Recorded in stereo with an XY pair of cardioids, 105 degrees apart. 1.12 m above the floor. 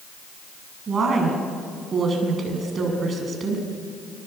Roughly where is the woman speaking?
Ahead right.